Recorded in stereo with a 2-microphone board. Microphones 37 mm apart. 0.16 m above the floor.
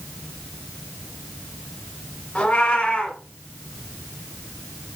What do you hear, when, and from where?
2.4 s a cat meowing: 30° left (ahead or behind), 0.7 m